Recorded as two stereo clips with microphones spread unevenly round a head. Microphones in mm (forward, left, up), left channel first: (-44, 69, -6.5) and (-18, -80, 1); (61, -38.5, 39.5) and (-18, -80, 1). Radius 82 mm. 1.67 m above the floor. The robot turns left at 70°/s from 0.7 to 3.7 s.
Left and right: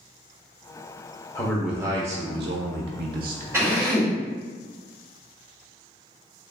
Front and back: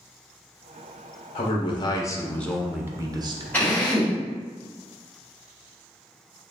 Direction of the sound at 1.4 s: 25° left.